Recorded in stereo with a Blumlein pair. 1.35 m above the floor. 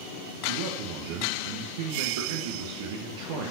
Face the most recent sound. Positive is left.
turn(degrees=-50)